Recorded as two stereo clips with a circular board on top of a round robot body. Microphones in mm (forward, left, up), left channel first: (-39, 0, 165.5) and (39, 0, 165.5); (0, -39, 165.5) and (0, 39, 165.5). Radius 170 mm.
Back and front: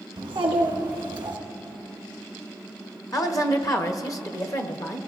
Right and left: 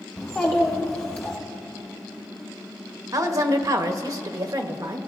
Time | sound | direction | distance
0.2 | a child speaking | 25° right | 1.5 m
3.1 | a woman speaking | 135° left | 1.0 m